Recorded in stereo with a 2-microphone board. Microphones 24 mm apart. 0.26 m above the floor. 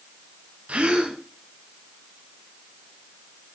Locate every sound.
0.7 s a gasp: 70° right (ahead or behind), 3.5 m